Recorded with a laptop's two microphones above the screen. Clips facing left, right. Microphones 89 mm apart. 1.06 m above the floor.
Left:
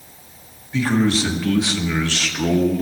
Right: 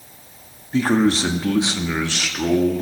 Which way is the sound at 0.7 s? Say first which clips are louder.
Right 1 dB; 45° right (ahead or behind).